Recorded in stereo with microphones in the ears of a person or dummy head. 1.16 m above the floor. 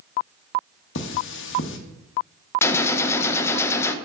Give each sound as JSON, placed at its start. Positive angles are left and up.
{"t": 0.9, "sound": "cutlery clinking", "side_deg": 75, "distance_m": 0.9}
{"t": 2.6, "sound": "a gunshot", "side_deg": 15, "distance_m": 0.6}